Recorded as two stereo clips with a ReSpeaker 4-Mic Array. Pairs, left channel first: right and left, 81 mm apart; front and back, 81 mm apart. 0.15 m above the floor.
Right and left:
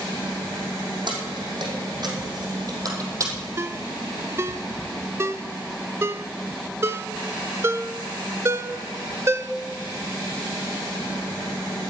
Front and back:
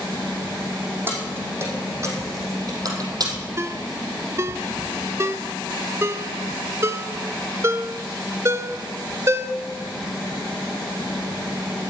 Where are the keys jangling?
115° left, 6 m; by 3.3 s 140° left, 4 m.